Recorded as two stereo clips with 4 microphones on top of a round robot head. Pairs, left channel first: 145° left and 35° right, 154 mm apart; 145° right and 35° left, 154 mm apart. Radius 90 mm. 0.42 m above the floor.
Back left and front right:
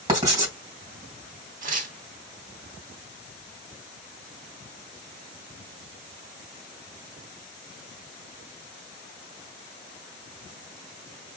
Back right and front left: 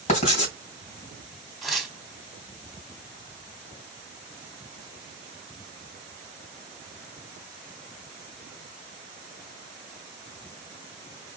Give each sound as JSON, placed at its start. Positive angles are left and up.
{"t": 0.1, "sound": "writing", "azimuth_deg": -100, "distance_m": 2.0}
{"t": 1.6, "sound": "tearing paper", "azimuth_deg": -55, "distance_m": 1.3}